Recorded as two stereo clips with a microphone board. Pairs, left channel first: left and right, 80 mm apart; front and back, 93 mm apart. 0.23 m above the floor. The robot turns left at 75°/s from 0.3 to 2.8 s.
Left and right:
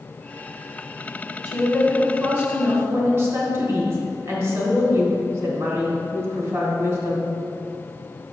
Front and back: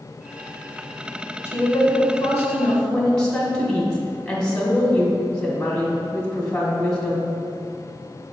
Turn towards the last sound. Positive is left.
turn(degrees=-75)